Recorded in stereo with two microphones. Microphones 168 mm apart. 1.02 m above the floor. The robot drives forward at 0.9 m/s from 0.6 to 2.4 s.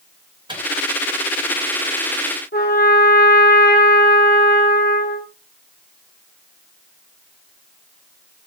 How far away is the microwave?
About 4 m.